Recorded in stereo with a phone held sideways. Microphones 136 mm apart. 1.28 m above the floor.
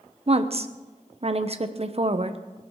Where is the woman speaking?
45° right (ahead or behind), 0.8 m.